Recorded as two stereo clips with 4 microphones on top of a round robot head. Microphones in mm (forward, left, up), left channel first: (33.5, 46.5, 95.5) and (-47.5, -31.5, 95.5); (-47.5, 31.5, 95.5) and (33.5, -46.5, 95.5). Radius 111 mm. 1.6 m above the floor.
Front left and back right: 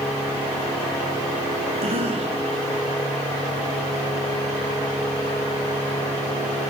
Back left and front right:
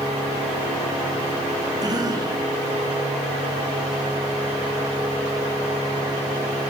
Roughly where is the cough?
Right.